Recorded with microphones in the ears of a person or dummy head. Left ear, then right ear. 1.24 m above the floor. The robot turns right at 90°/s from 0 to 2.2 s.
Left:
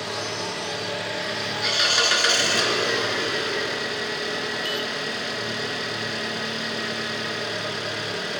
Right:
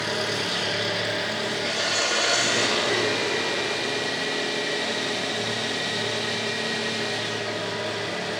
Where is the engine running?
115° right, 4 m; by 8.4 s 80° left, 4 m.